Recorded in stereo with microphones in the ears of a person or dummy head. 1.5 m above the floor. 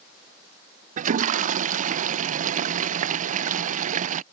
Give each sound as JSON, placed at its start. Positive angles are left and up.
{"t": 1.0, "sound": "a toilet flushing", "side_deg": -45}